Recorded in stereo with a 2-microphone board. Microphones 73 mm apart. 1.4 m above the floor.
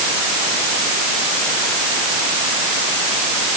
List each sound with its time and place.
Only background noise.